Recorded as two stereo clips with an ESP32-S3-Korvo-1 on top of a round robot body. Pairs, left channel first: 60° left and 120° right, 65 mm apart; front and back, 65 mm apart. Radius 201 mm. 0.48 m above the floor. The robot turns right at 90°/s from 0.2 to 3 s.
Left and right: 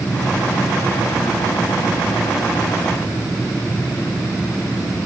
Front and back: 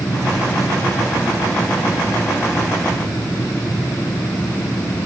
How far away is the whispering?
I don't hear whispering.